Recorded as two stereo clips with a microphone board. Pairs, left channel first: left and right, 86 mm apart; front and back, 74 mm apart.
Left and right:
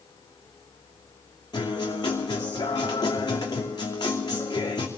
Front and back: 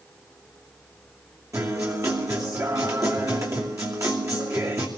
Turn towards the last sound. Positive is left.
turn(degrees=130)